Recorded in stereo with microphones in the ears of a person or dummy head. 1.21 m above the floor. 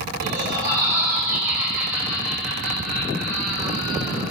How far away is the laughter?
About 3 m.